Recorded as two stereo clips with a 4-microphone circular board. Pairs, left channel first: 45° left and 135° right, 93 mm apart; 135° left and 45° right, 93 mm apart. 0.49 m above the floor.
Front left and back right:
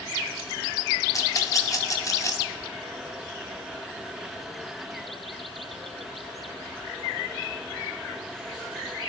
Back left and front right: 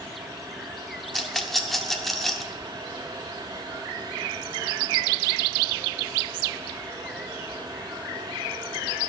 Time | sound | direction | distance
1.1 | a rattle | 50° left | 0.6 m